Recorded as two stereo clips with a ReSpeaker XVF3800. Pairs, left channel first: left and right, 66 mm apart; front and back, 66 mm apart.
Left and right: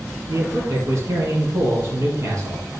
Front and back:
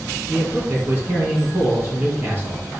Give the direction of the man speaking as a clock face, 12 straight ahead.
4 o'clock.